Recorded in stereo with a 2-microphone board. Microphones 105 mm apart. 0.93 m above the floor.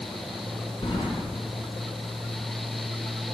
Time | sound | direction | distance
0.8 | keys jangling | 55° left (ahead or behind) | 2.5 m